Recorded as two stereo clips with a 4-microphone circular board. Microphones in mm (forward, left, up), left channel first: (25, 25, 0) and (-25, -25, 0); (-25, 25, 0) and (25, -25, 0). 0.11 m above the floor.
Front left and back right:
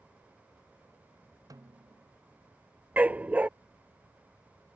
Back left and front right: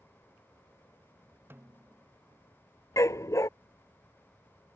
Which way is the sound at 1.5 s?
105° right.